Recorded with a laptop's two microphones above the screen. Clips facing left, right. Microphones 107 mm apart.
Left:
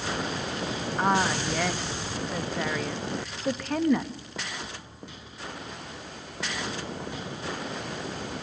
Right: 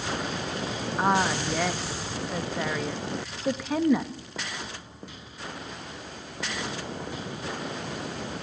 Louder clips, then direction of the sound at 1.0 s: Right 1 dB; 5° right (ahead or behind).